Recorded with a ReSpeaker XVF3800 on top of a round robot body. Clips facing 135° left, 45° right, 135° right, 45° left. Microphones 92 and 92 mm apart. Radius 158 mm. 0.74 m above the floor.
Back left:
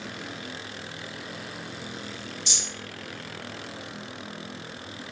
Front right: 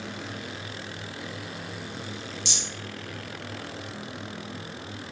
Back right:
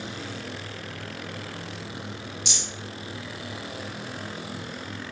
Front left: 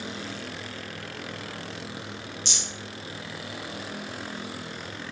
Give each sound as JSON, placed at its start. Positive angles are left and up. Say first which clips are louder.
{"t": 2.5, "sound": "a rattle", "louder": "front right 1 dB, back right 1 dB", "azimuth_deg": -55, "distance_m": 0.7}